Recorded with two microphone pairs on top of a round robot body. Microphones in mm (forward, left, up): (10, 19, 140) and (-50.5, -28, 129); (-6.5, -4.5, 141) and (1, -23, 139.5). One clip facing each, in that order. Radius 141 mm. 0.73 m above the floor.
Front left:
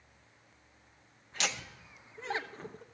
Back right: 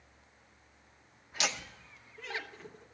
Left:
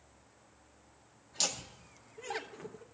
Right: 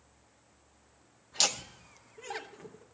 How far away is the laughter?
About 1.1 m.